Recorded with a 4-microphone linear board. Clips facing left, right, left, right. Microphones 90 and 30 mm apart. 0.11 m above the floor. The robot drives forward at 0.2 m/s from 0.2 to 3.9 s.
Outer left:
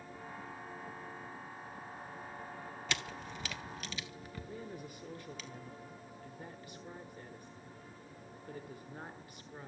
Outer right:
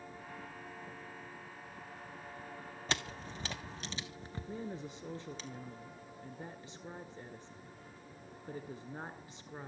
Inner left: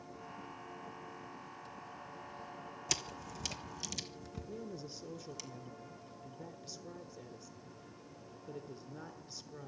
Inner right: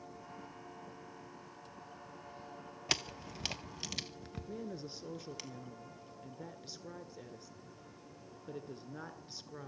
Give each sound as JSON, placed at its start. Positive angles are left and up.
{"t": 2.9, "sound": "a camera shutter", "side_deg": -35, "distance_m": 1.5}
{"t": 4.5, "sound": "a woman speaking", "side_deg": -25, "distance_m": 1.4}